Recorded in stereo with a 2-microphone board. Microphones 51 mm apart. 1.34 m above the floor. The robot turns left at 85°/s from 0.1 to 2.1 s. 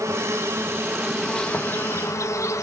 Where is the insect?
85° right, 1.3 m; by 2.6 s 105° left, 1.3 m.